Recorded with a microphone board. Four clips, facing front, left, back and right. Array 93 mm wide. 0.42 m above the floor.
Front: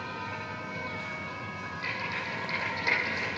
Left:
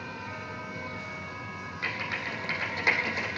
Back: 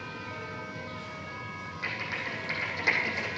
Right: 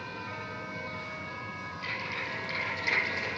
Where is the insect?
10° left, 3.5 m.